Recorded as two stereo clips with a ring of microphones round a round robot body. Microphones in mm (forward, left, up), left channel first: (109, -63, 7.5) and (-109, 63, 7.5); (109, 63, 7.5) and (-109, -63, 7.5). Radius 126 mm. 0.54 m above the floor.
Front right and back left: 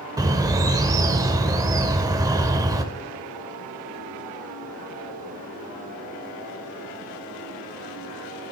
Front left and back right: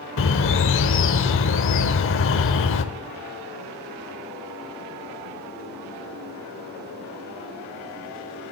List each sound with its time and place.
0.2 s a bird: 75° left, 0.8 m